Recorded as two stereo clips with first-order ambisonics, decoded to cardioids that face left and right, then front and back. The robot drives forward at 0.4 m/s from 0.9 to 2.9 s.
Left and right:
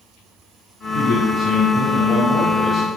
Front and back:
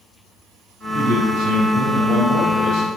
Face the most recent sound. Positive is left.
turn(degrees=155)